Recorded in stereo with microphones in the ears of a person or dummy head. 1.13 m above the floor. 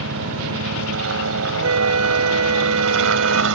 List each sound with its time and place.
0.0 s a helicopter: 65° right (ahead or behind)
1.6 s a flute: 80° right